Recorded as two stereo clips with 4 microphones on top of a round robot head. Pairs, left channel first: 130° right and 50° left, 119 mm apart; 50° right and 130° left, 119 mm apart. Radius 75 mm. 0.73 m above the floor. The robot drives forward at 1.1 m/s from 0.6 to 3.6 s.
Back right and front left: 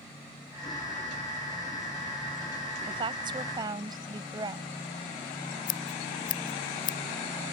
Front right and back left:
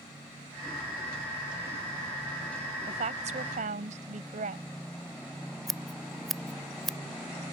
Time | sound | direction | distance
2.9 | a woman speaking | 95° left | ?
5.7 | scissors | 135° right | ?